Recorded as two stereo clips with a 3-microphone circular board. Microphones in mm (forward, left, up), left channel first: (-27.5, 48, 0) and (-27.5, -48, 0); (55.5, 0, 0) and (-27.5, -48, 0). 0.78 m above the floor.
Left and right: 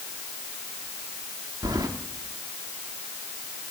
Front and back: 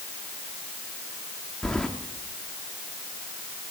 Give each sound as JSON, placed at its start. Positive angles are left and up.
{"t": 1.6, "sound": "keys jangling", "azimuth_deg": -50, "distance_m": 1.0}